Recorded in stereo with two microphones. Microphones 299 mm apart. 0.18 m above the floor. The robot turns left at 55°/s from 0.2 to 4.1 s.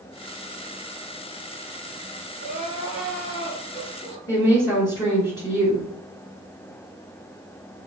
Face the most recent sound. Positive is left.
turn(degrees=15)  # may be behind; listen again after turning